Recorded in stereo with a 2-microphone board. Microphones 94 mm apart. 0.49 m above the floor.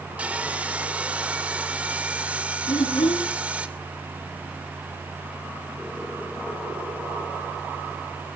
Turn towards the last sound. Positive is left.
turn(degrees=75)  # may be behind; listen again after turning